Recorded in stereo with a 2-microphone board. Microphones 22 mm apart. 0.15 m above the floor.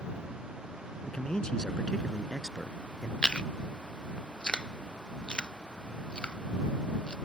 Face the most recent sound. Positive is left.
turn(degrees=45)  # may be behind; listen again after turning